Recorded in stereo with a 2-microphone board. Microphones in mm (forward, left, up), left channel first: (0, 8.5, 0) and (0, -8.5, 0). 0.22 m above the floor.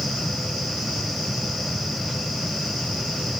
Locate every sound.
Only background noise.